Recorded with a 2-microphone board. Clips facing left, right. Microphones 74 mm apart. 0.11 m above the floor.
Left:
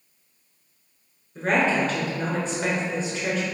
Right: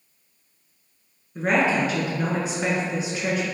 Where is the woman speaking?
10° right (ahead or behind), 1.2 m.